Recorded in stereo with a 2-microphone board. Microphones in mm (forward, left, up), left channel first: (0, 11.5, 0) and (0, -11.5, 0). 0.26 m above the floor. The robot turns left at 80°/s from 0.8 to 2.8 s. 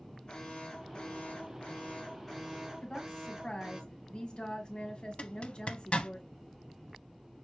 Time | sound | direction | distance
0.3 | an alarm | 130° left | 2 m
2.8 | a woman speaking | 50° left (ahead or behind) | 1.6 m
5.2 | a zipper | 60° left (ahead or behind) | 0.6 m